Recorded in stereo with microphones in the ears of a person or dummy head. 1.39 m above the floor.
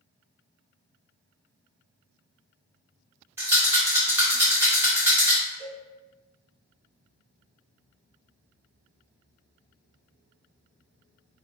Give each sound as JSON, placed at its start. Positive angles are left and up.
{"t": 3.4, "sound": "a rattle", "side_deg": -10, "distance_m": 0.8}
{"t": 5.6, "sound": "a cowbell", "side_deg": -45, "distance_m": 1.6}